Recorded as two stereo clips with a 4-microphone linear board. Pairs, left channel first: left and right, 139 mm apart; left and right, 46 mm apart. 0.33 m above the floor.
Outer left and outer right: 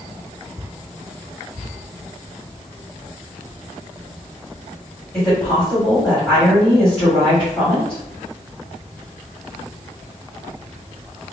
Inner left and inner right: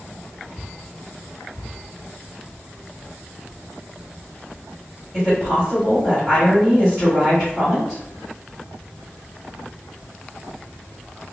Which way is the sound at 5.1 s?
10° left (ahead or behind).